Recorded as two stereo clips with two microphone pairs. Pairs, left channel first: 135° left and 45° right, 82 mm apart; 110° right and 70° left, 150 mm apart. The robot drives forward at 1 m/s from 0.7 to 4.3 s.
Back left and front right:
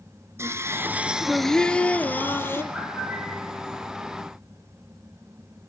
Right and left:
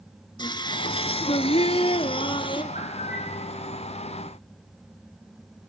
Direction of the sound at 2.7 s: 130° right.